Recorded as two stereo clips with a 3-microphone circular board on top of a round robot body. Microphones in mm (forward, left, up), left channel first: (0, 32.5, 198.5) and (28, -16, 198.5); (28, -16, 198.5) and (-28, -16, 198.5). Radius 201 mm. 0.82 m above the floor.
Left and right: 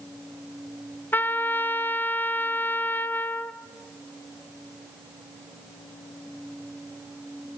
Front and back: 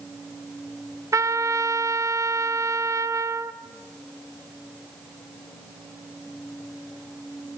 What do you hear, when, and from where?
1.1 s a trumpet: 170° left, 1.5 m